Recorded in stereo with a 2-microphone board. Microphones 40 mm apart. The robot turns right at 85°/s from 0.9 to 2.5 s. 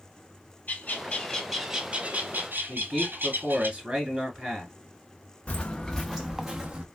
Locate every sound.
0.7 s a bird: 130° left, 0.9 m; by 3.7 s 90° right, 0.9 m
2.7 s a man speaking: 25° right (ahead or behind), 1.5 m
5.5 s footsteps: 40° left (ahead or behind), 0.6 m; by 6.8 s 20° right (ahead or behind), 0.9 m